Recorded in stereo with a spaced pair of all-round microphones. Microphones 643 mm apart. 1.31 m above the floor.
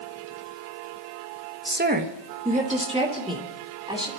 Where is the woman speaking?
20° right (ahead or behind), 1.0 m; by 4.1 s 10° right (ahead or behind), 3.5 m.